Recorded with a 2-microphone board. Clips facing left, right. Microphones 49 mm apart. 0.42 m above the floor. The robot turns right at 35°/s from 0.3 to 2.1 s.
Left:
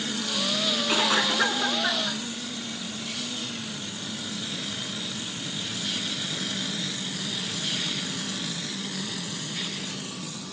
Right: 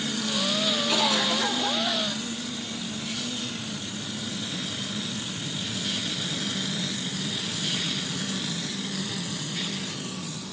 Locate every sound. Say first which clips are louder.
0.9 s a cough: left 2 dB; 25° left, 4.5 m; by 2.2 s 70° left, 4.5 m